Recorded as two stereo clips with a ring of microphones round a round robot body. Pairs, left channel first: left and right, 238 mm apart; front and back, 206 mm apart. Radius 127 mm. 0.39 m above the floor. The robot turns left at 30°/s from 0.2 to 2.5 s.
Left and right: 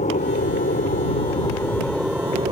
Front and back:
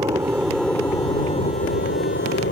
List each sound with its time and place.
0.0 s an aircraft: 120° left; by 2.5 s 25° right